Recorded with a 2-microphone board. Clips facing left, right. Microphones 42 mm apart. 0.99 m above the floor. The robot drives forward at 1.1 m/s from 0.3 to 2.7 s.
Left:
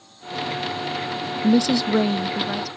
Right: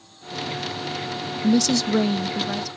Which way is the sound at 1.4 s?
20° left (ahead or behind).